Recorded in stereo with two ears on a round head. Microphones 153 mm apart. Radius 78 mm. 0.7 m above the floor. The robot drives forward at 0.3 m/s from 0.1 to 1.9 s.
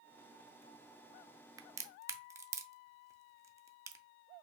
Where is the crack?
20° right (ahead or behind), 0.6 m.